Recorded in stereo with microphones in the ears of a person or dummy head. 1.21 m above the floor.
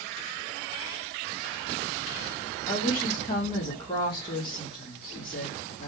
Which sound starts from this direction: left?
A woman speaking, at 2.7 s.